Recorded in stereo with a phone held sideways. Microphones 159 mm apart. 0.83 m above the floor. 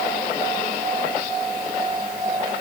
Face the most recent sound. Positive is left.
No sound to turn to.